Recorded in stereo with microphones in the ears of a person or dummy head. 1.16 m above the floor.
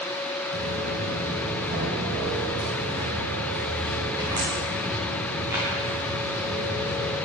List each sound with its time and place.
0.5 s footsteps: 45° right (ahead or behind), 2.5 m; by 7.2 s 10° right (ahead or behind), 6.5 m